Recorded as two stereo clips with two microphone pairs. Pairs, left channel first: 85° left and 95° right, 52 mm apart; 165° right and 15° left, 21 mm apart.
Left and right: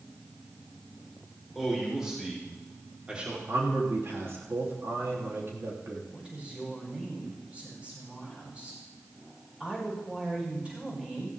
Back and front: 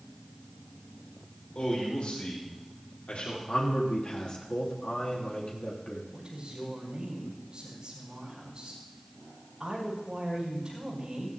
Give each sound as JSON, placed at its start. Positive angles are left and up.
{"t": 1.6, "sound": "a man speaking", "azimuth_deg": -175, "distance_m": 5.5}
{"t": 3.5, "sound": "a man speaking", "azimuth_deg": -125, "distance_m": 3.0}
{"t": 6.1, "sound": "a woman speaking", "azimuth_deg": -30, "distance_m": 10.0}